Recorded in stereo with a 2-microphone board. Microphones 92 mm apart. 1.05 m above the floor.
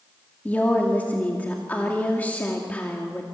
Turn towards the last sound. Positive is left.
turn(degrees=15)  # may be behind; listen again after turning